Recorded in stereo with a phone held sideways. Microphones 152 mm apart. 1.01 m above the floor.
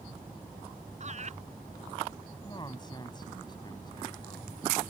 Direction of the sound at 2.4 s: 30° left (ahead or behind).